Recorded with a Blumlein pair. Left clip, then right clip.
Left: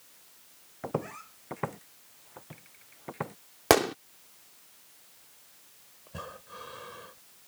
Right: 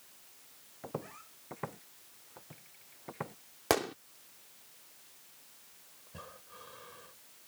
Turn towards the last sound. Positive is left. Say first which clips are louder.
# left 8 dB
turn(degrees=70)